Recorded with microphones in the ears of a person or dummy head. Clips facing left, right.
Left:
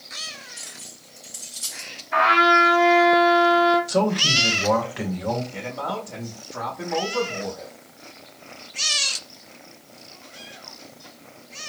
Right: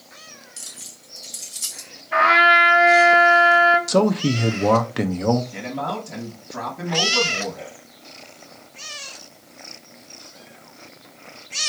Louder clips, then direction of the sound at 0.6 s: Left 1 dB; 70° right (ahead or behind).